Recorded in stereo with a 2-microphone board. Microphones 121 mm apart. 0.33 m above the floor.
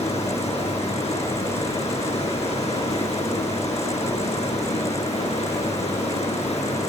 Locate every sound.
0.0 s running water: 65° left (ahead or behind), 1.2 m